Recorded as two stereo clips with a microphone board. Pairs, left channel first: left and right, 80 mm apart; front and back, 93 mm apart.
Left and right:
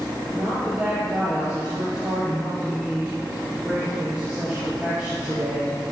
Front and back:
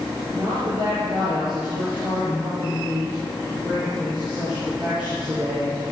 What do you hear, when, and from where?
0.3 s a woman speaking: 165° right, 5.5 m